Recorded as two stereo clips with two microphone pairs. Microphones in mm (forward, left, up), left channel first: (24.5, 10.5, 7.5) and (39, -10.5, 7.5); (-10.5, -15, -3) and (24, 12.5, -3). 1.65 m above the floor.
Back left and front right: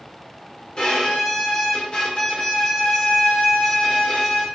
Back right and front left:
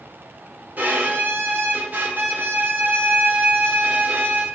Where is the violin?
75° left, 1.4 m.